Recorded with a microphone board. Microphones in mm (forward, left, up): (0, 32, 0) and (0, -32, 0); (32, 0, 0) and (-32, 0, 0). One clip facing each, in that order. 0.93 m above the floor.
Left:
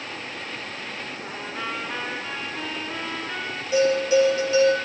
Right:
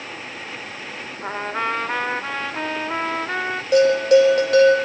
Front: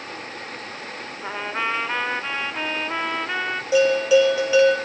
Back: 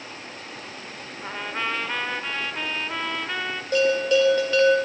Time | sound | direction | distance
1.2 | a trumpet | 70° right | 1.2 m
3.7 | a bell | 80° right | 3 m